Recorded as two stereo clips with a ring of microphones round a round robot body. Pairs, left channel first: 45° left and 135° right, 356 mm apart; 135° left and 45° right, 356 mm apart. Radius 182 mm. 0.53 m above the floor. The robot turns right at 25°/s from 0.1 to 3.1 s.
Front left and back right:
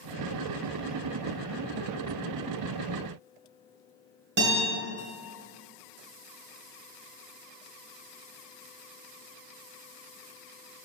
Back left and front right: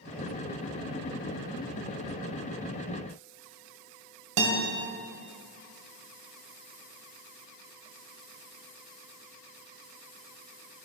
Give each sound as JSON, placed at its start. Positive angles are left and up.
{"t": 4.4, "sound": "a guitar", "azimuth_deg": -75, "distance_m": 1.8}